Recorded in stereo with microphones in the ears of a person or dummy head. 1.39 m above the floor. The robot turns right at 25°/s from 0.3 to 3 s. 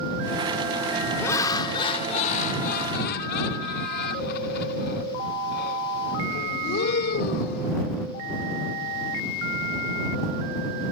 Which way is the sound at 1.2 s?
15° left.